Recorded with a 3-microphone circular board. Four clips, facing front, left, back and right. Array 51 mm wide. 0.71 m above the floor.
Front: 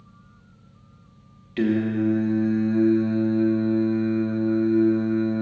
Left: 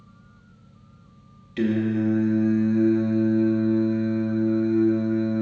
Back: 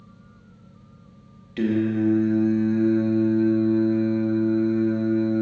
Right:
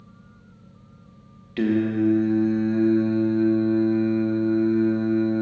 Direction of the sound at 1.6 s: 60° right.